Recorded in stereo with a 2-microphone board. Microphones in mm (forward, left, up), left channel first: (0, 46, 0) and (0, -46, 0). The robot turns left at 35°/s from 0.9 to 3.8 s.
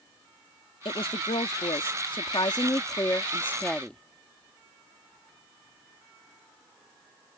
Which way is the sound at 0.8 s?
110° left.